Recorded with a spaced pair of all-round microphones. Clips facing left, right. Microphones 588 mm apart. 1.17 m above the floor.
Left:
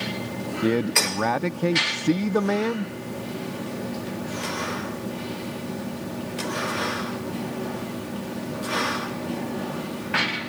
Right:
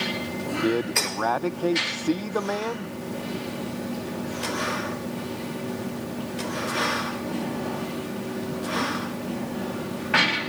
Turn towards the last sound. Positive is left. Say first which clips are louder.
# left 2 dB
turn(degrees=50)  # may be behind; listen again after turning